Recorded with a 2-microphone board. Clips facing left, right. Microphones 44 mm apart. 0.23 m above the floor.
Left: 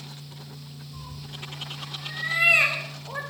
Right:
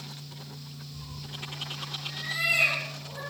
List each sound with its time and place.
0.9 s a cat meowing: 75° left (ahead or behind), 5 m; by 3.2 s 65° left (ahead or behind), 4.5 m